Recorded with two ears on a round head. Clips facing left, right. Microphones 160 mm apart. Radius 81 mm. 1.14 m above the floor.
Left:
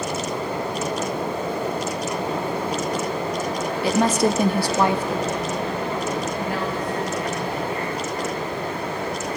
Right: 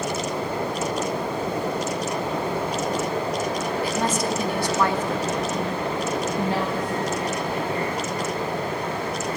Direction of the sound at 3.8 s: 60° left (ahead or behind).